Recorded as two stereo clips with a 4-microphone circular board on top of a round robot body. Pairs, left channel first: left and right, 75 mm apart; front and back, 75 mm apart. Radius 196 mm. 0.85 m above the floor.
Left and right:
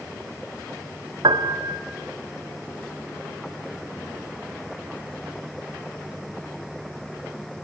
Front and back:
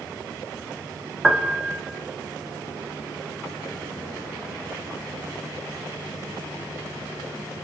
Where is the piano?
90° right, 2.5 m.